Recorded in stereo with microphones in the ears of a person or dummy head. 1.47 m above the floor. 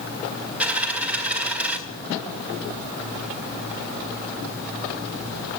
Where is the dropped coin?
5° right (ahead or behind), 1.6 m.